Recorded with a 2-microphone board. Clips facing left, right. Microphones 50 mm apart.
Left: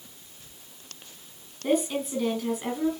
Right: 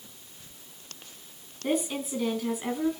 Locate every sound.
1.6 s a woman speaking: centre (ahead or behind), 4 m